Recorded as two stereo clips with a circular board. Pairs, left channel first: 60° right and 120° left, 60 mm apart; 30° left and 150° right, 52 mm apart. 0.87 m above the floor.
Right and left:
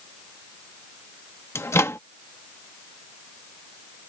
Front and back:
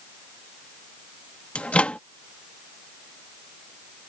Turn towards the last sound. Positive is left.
turn(degrees=-35)